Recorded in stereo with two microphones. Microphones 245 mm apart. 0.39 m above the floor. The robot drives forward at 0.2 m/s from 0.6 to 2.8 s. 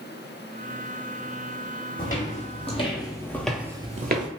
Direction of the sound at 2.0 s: 35° left (ahead or behind).